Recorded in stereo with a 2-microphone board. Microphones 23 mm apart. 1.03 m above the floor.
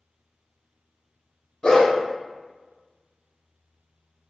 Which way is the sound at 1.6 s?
40° left (ahead or behind).